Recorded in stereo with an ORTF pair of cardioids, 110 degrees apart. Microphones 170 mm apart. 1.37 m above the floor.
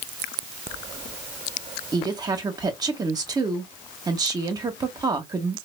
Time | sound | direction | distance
1.9 | a woman speaking | 20° right | 1.7 m